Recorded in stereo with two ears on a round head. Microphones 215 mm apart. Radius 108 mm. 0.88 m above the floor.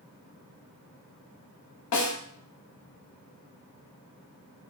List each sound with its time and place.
1.9 s a snare drum: 80° left, 0.8 m